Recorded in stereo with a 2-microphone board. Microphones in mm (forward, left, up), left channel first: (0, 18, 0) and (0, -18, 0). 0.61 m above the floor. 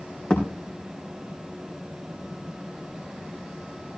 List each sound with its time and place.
0.3 s a thud: 25° left (ahead or behind), 5 m